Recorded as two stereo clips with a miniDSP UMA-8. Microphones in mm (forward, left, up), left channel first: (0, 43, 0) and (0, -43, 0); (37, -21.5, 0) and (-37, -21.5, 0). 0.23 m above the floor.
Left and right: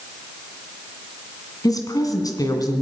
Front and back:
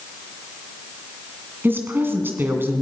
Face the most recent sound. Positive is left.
turn(degrees=125)